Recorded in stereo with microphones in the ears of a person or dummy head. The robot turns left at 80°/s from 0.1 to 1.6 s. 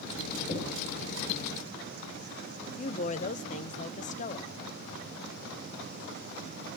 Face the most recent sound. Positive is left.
turn(degrees=35)  # may be behind; listen again after turning